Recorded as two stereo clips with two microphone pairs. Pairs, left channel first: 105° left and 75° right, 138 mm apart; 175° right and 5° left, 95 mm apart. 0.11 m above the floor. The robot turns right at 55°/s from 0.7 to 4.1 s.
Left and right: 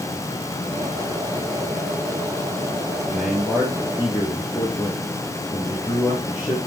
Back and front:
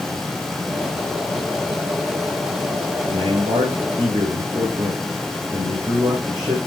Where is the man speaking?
20° right, 4 m; by 6.6 s 35° left, 4 m.